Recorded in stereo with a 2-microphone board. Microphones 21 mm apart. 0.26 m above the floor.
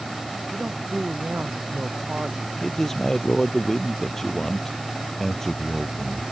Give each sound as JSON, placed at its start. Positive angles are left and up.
{"t": 0.5, "sound": "a man speaking", "side_deg": -85}
{"t": 2.6, "sound": "a man speaking", "side_deg": 15}